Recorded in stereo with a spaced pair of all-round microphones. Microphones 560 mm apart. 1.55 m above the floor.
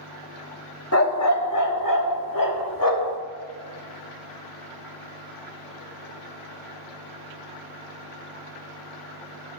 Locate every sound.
0.9 s a dog barking: 30° left (ahead or behind), 1.1 m; by 3.2 s 40° left (ahead or behind), 1.7 m